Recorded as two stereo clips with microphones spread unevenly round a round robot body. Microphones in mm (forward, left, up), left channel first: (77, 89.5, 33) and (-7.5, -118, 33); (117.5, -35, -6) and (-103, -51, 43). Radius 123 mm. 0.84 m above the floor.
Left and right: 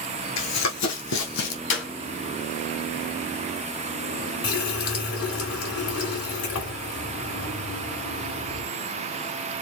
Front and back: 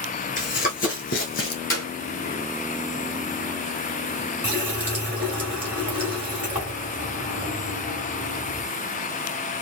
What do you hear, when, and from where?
0.4 s running footsteps: 65° left, 3 m
1.7 s a clap: 85° left, 4.5 m
4.4 s a running tap: 100° left, 2.5 m